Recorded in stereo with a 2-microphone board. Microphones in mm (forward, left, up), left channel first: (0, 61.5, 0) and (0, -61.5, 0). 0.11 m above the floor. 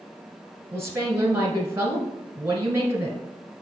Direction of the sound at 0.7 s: 25° right (ahead or behind).